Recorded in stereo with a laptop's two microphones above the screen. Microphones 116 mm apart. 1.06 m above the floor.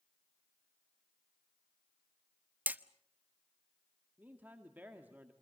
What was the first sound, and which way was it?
Hammering, 15° right (ahead or behind).